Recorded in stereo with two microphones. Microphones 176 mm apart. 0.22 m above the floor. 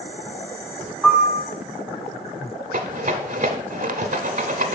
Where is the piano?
5° left (ahead or behind), 1.1 m.